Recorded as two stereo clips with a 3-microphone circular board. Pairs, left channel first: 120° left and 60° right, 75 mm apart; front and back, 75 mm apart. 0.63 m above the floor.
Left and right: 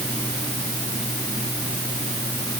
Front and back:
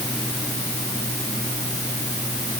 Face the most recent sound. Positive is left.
No sound to turn to.